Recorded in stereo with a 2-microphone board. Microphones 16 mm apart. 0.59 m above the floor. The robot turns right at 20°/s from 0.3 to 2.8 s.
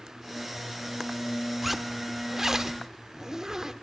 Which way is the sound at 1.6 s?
10° right (ahead or behind).